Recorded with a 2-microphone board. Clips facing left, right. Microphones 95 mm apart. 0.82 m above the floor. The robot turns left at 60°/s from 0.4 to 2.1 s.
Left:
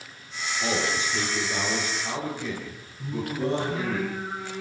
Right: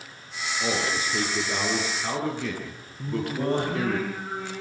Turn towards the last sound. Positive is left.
turn(degrees=-55)  # may be behind; listen again after turning